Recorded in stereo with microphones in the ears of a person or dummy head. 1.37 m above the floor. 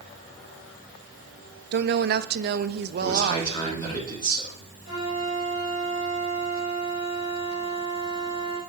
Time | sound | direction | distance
1.7 | a woman speaking | 50° right (ahead or behind) | 0.6 m
3.0 | a man speaking | 25° left (ahead or behind) | 1.9 m
4.8 | a flute | 55° left (ahead or behind) | 5.5 m